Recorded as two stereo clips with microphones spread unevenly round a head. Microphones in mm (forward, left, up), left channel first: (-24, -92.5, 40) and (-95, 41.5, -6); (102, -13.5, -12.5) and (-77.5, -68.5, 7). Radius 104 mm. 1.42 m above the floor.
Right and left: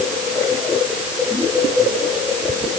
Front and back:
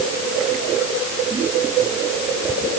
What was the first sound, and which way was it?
Only background noise.